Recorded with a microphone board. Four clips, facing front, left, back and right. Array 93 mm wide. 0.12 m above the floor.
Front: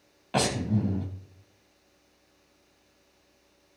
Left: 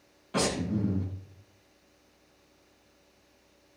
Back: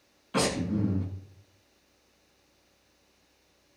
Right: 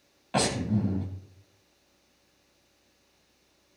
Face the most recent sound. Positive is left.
turn(degrees=-25)